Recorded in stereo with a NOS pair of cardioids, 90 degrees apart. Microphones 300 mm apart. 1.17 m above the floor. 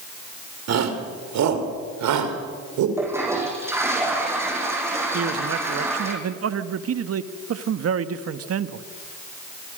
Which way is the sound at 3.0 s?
10° right.